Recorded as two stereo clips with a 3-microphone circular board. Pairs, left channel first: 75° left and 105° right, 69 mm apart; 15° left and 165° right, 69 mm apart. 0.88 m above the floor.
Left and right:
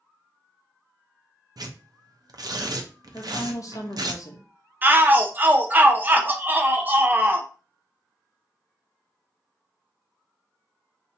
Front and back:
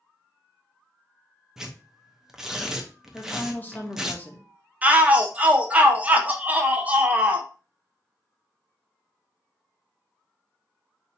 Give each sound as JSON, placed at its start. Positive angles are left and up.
{"t": 1.6, "sound": "tearing paper", "azimuth_deg": -80, "distance_m": 0.5}
{"t": 3.1, "sound": "a woman speaking", "azimuth_deg": 75, "distance_m": 0.8}
{"t": 4.8, "sound": "a shout", "azimuth_deg": -125, "distance_m": 0.5}